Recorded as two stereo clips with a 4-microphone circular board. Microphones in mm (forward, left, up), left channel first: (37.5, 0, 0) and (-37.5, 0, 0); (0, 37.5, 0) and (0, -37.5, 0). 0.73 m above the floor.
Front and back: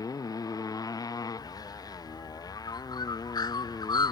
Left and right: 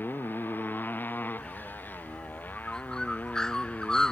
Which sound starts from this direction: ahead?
A bird, at 1.4 s.